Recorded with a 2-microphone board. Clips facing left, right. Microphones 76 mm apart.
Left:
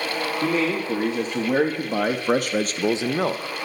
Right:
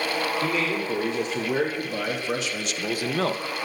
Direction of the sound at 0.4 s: 40° left (ahead or behind).